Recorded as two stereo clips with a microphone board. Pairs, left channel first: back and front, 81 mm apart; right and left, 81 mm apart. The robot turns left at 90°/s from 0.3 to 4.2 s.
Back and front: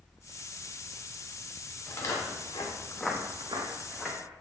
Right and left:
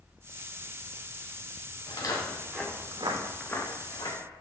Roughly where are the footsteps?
Right.